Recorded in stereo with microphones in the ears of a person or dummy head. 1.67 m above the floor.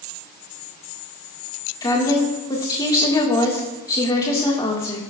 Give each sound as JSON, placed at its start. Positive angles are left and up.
{"t": 1.8, "sound": "a woman speaking", "side_deg": 20, "distance_m": 1.7}